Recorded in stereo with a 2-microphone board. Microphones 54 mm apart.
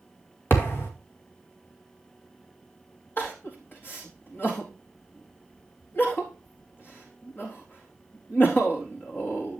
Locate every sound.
0.5 s a thud: 45° left (ahead or behind), 2 m
3.2 s crying: 45° left (ahead or behind), 4 m